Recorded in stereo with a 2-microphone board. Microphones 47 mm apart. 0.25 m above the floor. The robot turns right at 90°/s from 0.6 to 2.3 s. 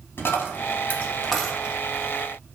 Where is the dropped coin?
60° left (ahead or behind), 0.5 m; by 1.8 s 25° right (ahead or behind), 0.5 m.